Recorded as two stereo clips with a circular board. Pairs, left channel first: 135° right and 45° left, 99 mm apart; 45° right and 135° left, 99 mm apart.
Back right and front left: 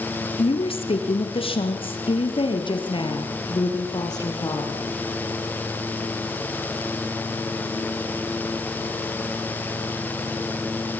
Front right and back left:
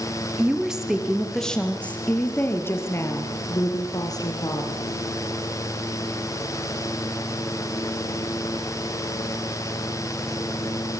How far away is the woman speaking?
About 4 m.